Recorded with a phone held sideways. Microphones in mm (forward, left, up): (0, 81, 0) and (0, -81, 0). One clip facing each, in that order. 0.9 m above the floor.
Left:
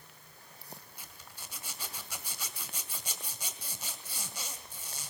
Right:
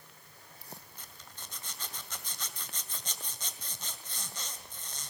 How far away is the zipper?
About 1.9 m.